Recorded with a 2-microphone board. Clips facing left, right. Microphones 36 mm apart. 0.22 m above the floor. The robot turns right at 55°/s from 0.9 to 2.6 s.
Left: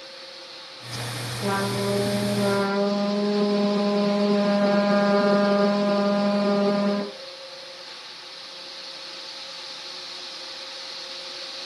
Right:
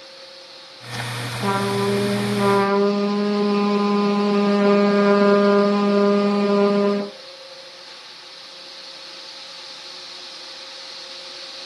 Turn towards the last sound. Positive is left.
turn(degrees=-90)